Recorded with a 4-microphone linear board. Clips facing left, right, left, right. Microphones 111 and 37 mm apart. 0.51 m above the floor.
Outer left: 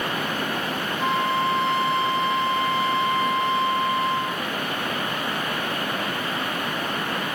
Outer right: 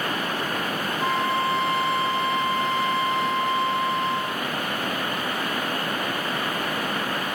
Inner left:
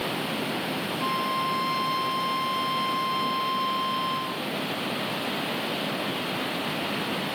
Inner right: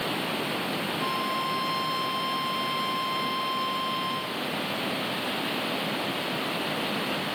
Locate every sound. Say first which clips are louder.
1.0 s a flute: outer left 1 dB, inner left 4 dB; centre (ahead or behind), 1.0 m